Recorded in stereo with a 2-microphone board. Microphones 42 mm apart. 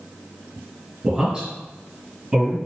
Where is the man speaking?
20° right (ahead or behind), 1.6 m.